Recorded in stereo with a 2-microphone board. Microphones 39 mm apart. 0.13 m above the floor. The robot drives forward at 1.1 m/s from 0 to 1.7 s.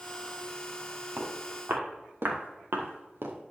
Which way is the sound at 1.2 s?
55° right (ahead or behind).